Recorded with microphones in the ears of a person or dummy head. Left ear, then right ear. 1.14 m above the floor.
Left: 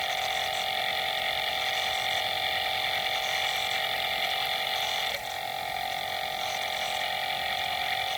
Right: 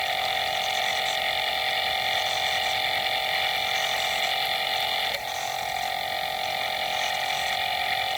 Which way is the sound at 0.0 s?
Centre (ahead or behind).